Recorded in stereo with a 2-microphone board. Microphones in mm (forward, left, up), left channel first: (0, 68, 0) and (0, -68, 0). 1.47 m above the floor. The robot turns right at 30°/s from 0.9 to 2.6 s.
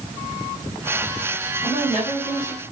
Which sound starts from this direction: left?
A woman speaking, at 1.6 s.